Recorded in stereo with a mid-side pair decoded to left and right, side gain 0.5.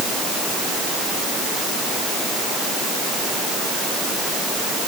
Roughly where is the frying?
I don't hear frying.